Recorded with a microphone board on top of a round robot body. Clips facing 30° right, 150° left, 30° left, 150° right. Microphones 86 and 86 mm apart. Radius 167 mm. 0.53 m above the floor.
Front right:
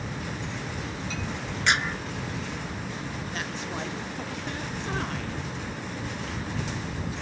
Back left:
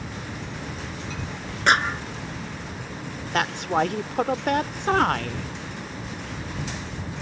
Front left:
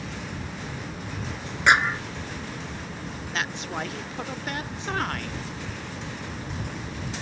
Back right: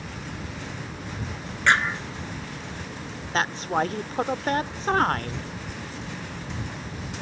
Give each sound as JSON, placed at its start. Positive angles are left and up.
{"t": 1.7, "sound": "a clap", "azimuth_deg": 105}
{"t": 3.3, "sound": "a woman speaking", "azimuth_deg": 165}